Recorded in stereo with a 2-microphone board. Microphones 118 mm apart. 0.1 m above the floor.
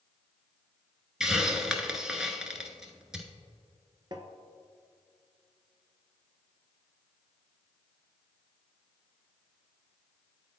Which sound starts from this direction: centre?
A hiss, at 1.2 s.